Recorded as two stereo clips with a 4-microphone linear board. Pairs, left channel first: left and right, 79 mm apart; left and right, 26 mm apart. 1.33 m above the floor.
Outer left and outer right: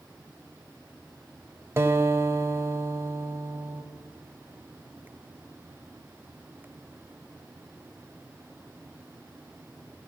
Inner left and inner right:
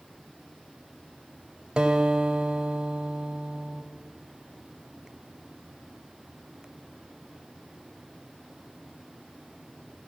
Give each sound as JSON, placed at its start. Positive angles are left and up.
{"t": 1.8, "sound": "a guitar", "side_deg": -35, "distance_m": 1.7}